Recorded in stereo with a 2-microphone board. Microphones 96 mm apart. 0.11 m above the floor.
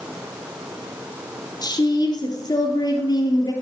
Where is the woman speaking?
45° left (ahead or behind), 2.5 m.